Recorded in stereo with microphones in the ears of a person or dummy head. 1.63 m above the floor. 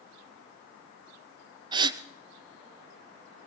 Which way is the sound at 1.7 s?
30° right (ahead or behind).